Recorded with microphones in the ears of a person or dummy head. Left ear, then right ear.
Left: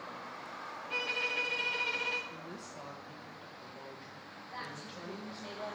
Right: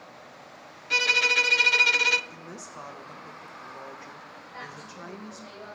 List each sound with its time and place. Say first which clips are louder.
0.9 s a violin: right 13 dB; 45° right (ahead or behind), 0.5 m
2.3 s a woman speaking: right 3 dB; 30° right (ahead or behind), 1.5 m
4.5 s a woman speaking: right 2 dB; 65° left (ahead or behind), 4 m